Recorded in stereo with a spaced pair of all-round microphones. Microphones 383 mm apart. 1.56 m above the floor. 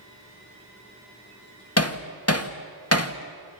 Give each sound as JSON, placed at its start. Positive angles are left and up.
{"t": 1.8, "sound": "hammering", "side_deg": 40, "distance_m": 1.7}